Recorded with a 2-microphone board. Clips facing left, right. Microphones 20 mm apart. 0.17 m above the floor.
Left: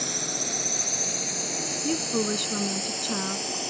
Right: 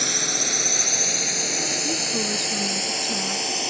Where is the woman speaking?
20° left (ahead or behind).